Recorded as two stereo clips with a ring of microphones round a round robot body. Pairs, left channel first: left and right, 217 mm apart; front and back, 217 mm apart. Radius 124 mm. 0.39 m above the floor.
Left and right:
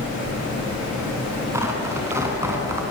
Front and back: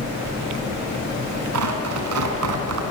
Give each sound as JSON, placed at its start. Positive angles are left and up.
{"t": 1.5, "sound": "tearing paper", "azimuth_deg": -170, "distance_m": 3.5}